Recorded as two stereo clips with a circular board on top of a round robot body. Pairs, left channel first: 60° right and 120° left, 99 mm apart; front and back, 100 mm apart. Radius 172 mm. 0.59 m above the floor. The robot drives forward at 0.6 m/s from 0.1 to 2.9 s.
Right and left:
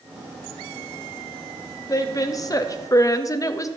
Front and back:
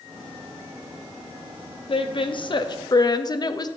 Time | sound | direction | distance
1.9 | a woman speaking | 10° right | 1.5 m